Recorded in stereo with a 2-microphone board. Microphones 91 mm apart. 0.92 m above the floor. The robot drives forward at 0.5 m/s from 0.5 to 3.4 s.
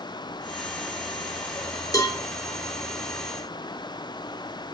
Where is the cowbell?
40° left (ahead or behind), 3 m.